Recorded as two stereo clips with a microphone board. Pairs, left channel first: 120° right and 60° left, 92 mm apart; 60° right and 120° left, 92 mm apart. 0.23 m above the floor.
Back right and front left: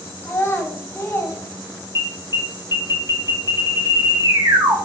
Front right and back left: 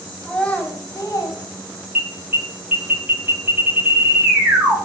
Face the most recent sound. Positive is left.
turn(degrees=60)